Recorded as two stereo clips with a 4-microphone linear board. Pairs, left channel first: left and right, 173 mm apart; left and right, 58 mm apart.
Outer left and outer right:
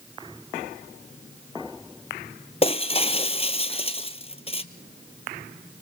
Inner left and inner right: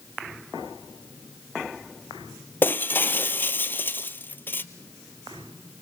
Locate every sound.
2.6 s breaking glass: 35° left (ahead or behind), 1.0 m